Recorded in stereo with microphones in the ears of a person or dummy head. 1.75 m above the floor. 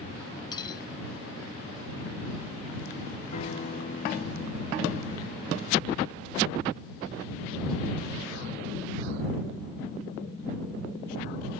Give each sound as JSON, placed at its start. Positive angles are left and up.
{"t": 0.5, "sound": "cutlery clinking", "side_deg": 25}
{"t": 3.3, "sound": "a guitar", "side_deg": 40}